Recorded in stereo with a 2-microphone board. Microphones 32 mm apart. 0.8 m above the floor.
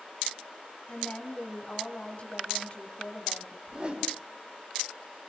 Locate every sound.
0.9 s a woman speaking: 35° left (ahead or behind), 5.5 m
3.7 s a whoosh: 35° right (ahead or behind), 3.5 m